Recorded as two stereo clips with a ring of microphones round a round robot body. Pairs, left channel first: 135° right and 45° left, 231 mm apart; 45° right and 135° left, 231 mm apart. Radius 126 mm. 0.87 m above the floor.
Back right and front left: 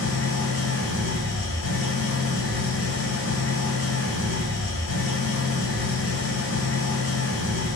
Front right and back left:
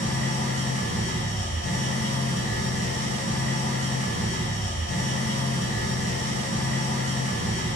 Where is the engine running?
105° right, 3.5 m.